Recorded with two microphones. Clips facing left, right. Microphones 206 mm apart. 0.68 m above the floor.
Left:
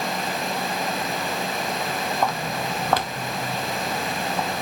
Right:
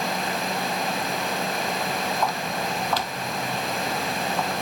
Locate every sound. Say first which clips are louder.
2.2 s footsteps: left 1 dB; 50° left (ahead or behind), 1.5 m; by 4.6 s 15° left (ahead or behind), 2.5 m